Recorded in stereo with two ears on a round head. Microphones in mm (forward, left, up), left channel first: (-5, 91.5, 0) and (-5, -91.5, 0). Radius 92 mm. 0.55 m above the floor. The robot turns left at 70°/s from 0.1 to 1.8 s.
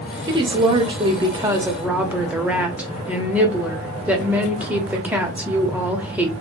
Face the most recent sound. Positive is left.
turn(degrees=-5)  # may be behind; listen again after turning